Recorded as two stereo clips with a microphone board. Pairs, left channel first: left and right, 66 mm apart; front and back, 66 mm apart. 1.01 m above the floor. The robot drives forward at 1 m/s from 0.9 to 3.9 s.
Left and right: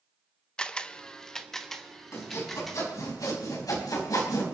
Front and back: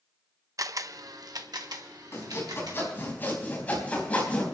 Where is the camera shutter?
165° left, 0.6 m; by 2.9 s 175° left, 2.5 m.